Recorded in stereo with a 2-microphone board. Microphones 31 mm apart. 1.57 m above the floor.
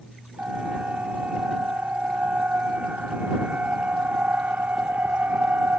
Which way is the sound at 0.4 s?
50° right (ahead or behind).